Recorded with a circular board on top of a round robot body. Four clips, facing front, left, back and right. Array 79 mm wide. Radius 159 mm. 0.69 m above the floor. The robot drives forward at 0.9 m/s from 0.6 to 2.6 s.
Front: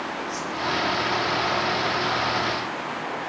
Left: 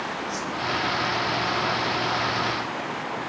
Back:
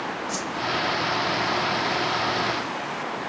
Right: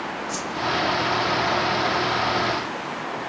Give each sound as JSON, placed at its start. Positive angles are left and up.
{"t": 0.3, "sound": "a whoosh", "azimuth_deg": -135, "distance_m": 1.8}